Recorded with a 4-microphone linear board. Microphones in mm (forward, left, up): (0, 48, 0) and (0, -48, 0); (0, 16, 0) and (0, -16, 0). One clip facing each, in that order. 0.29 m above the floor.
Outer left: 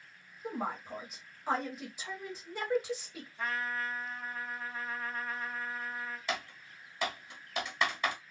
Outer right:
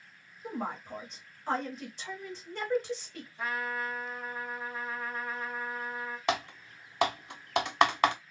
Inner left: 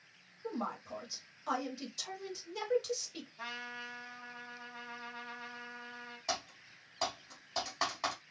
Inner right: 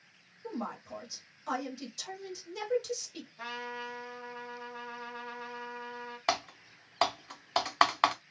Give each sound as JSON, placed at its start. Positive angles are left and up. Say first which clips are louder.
{"t": 0.4, "sound": "a woman speaking", "louder": "even, even", "side_deg": 5, "distance_m": 1.0}
{"t": 3.4, "sound": "a trumpet", "louder": "outer right 2 dB, inner right 4 dB", "side_deg": -5, "distance_m": 1.0}
{"t": 6.3, "sound": "typing on a keyboard", "louder": "outer right 10 dB, inner right 8 dB", "side_deg": -70, "distance_m": 0.6}